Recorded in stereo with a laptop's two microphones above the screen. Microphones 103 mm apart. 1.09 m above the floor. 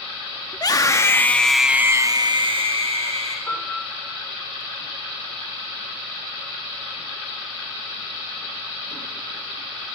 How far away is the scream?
About 2 m.